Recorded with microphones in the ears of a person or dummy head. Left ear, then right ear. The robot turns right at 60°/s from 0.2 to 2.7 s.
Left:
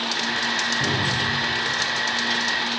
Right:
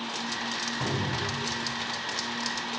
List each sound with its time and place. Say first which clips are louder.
0.8 s a cupboard door: left 8 dB; 20° right (ahead or behind), 4.5 m; by 1.2 s 45° right (ahead or behind), 4.5 m